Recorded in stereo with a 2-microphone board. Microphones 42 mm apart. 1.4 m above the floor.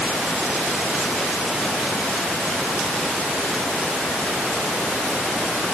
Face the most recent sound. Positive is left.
No sound to turn to.